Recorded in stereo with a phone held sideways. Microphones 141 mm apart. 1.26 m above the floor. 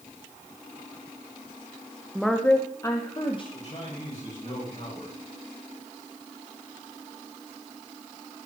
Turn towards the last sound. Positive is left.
turn(degrees=60)  # may be behind; listen again after turning